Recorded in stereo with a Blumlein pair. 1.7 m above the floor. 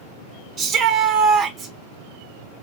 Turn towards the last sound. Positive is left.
turn(degrees=-20)